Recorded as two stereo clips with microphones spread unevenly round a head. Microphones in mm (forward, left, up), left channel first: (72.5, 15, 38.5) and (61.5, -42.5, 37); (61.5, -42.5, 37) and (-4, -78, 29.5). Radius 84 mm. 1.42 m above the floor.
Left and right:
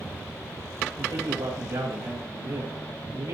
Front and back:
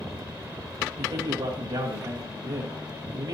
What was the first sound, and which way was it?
A man speaking, 125° right.